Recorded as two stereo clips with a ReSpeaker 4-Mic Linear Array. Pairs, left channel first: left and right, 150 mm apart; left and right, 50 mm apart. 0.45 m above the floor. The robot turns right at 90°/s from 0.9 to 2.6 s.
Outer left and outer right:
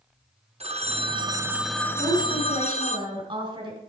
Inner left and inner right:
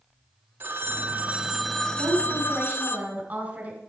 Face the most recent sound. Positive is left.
turn(degrees=-35)